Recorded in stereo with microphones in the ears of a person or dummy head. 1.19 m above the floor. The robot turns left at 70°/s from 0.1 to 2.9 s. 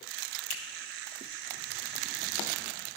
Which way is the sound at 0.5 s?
70° left (ahead or behind).